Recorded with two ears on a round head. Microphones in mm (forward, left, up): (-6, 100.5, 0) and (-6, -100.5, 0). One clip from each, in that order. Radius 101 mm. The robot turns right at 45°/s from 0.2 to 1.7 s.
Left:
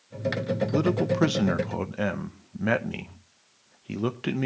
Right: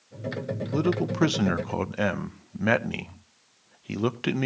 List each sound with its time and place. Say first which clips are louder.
0.7 s a man speaking: even; 165° left, 0.7 m; by 4.5 s 150° right, 0.7 m